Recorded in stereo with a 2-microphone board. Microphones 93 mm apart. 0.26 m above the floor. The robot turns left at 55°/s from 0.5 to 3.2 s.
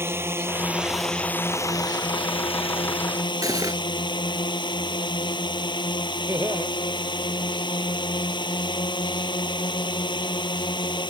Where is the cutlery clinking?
40° right (ahead or behind).